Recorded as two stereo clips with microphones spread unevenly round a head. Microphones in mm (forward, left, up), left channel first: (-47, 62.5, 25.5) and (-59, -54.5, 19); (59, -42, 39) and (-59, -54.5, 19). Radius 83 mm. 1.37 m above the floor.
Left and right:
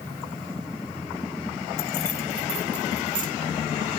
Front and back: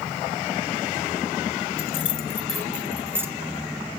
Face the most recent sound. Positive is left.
turn(degrees=-100)